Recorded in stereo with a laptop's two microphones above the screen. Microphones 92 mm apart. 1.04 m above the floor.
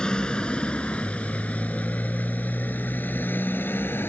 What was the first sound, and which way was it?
A motorcycle, 10° left (ahead or behind).